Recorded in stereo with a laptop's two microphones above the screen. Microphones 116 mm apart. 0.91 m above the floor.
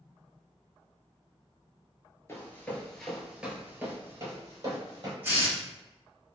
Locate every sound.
2.3 s running footsteps: 25° left (ahead or behind), 0.9 m; by 5.1 s 40° right (ahead or behind), 1.5 m
5.2 s a hiss: 20° right (ahead or behind), 0.9 m